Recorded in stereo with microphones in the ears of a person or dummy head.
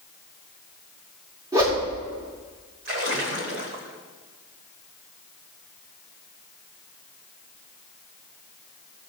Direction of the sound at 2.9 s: 40° right (ahead or behind).